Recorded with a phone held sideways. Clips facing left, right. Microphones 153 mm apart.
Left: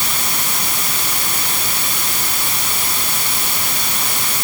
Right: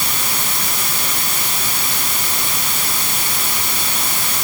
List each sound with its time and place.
Only background noise.